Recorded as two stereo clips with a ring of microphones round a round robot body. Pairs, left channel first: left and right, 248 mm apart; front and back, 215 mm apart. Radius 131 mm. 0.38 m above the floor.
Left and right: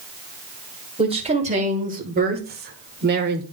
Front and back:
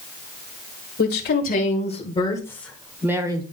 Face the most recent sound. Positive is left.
turn(degrees=-115)